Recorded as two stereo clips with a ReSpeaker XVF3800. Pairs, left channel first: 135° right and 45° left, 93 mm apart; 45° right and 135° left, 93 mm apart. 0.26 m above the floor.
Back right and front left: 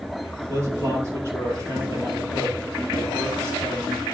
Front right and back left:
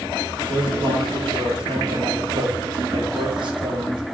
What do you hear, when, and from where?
0.5 s a man speaking: 105° left, 5 m